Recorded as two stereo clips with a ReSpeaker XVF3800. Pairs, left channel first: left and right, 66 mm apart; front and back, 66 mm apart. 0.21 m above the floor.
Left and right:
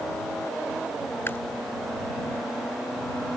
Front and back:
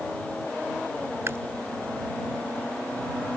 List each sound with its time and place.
1.3 s chewing: 140° left